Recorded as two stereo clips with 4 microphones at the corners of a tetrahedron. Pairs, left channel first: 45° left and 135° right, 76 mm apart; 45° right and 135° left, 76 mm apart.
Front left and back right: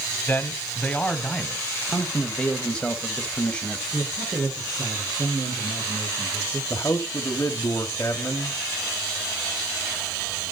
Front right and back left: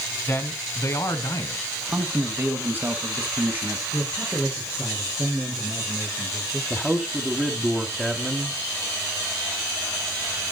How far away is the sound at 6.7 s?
About 1.2 m.